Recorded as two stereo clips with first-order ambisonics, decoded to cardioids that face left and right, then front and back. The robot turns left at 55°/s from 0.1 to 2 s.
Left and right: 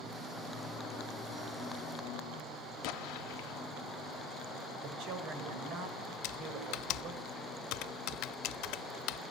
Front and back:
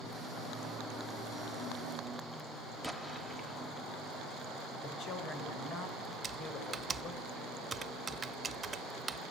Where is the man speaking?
55° right, 4 m.